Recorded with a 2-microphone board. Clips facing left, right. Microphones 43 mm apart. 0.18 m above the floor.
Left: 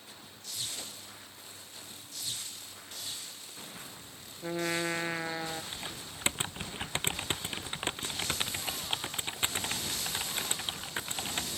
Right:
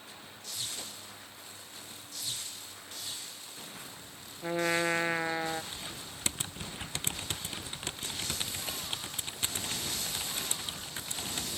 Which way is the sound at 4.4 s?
15° right (ahead or behind).